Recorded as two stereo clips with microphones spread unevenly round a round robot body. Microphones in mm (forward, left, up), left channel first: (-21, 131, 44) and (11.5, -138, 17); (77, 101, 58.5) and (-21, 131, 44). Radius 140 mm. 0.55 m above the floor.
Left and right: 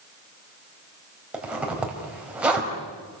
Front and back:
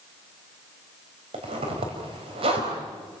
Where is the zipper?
170° right, 4 m.